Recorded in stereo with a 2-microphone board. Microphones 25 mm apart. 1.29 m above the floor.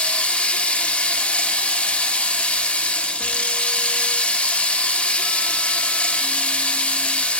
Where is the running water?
70° left (ahead or behind), 1.6 m.